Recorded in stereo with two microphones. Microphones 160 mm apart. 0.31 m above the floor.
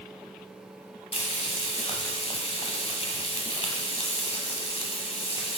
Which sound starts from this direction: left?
Frying, at 1.1 s.